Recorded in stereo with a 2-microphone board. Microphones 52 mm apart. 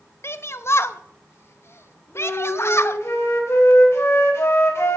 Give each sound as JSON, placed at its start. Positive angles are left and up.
{"t": 0.2, "sound": "a shout", "side_deg": 55, "distance_m": 0.8}
{"t": 2.1, "sound": "a flute", "side_deg": 60, "distance_m": 3.5}